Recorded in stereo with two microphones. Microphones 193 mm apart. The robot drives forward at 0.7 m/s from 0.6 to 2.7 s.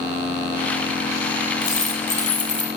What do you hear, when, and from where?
1.6 s a dropped coin: 40° left (ahead or behind), 0.9 m; by 2.7 s 60° left (ahead or behind), 0.6 m